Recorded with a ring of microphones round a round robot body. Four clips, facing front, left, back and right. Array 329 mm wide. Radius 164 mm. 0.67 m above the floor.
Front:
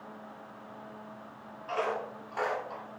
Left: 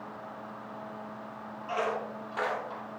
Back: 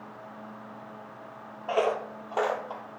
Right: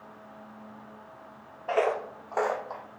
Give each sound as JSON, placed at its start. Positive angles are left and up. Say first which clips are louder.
{"t": 1.7, "sound": "footsteps", "louder": "right 5 dB, back 6 dB", "azimuth_deg": -130, "distance_m": 1.0}